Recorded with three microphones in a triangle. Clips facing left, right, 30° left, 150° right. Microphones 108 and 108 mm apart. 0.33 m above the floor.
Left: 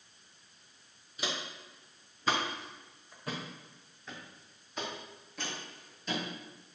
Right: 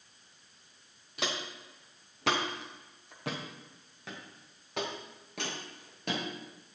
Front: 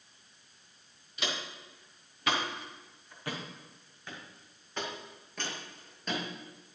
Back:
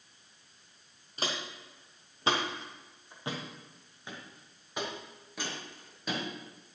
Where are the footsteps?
100° right, 3.5 m; by 6.2 s 65° right, 5.5 m.